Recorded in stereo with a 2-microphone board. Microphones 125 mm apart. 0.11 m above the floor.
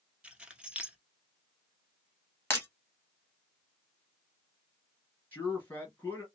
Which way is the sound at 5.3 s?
15° left (ahead or behind).